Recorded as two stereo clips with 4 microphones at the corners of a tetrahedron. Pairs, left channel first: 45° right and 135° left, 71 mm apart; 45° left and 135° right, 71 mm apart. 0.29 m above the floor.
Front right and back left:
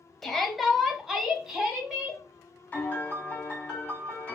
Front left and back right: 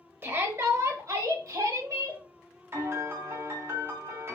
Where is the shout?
125° right, 1.0 m; by 2.2 s 150° right, 1.8 m.